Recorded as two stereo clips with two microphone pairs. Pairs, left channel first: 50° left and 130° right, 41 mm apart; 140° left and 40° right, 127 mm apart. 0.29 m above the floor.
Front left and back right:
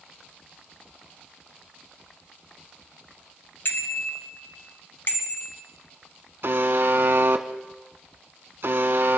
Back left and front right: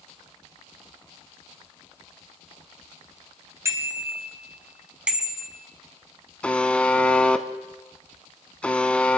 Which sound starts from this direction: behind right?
A buzzer, at 6.4 s.